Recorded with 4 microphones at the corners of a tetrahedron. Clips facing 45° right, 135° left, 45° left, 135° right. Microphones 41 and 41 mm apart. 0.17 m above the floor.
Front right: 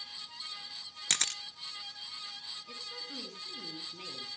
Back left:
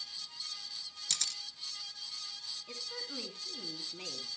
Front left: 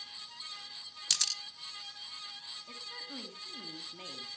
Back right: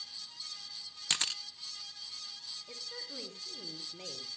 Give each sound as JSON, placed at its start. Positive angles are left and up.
{"t": 1.1, "sound": "a camera shutter", "azimuth_deg": -75, "distance_m": 0.5}
{"t": 2.7, "sound": "a woman speaking", "azimuth_deg": 75, "distance_m": 1.9}